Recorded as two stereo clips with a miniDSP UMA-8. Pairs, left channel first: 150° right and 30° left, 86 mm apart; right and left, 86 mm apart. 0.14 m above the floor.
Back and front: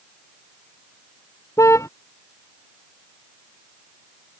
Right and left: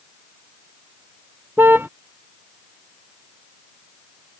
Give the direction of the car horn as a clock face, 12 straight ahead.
7 o'clock.